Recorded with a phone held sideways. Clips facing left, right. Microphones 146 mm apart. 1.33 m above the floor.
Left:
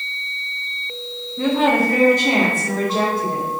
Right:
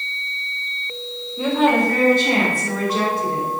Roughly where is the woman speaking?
Centre.